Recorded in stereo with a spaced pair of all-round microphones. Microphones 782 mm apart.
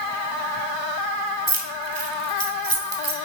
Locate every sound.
1.5 s keys jangling: 60° right (ahead or behind), 1.2 m